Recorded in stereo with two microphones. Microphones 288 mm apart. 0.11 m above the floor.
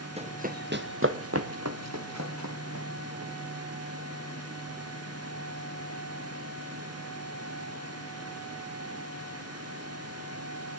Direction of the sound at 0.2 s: 20° right (ahead or behind).